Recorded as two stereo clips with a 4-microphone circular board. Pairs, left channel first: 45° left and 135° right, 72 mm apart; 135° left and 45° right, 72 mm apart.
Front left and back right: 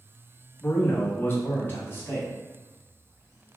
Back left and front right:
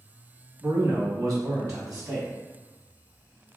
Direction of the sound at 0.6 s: 10° right.